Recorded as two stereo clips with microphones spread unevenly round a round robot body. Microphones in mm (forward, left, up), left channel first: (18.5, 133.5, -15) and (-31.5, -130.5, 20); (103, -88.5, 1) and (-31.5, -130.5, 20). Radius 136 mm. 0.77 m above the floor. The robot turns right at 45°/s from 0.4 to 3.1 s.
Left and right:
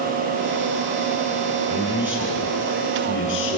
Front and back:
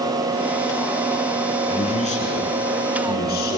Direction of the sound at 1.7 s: 35° right.